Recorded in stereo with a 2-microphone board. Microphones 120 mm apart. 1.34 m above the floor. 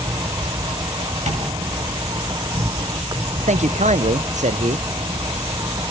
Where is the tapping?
75° right (ahead or behind), 8 m.